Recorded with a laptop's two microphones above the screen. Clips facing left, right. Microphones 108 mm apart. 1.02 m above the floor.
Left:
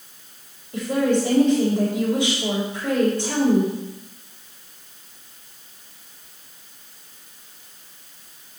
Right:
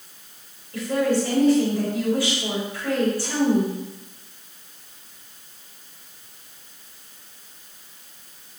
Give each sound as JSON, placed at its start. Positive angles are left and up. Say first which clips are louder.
{"t": 0.7, "sound": "a woman speaking", "louder": "left 1 dB", "side_deg": 25, "distance_m": 3.5}